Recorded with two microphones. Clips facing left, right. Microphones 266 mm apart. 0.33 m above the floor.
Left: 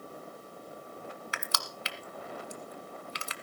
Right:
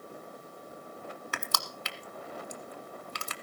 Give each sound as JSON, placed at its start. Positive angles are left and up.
{"t": 1.3, "sound": "crushing", "side_deg": -55, "distance_m": 1.4}